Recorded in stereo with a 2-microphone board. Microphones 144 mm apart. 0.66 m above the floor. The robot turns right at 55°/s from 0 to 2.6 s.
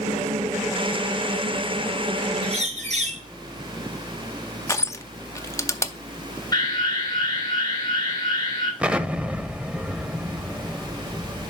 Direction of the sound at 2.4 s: 45° right (ahead or behind).